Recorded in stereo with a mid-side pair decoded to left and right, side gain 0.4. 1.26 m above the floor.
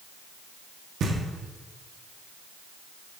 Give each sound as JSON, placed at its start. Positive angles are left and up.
{"t": 1.0, "sound": "knocking", "azimuth_deg": -70, "distance_m": 1.5}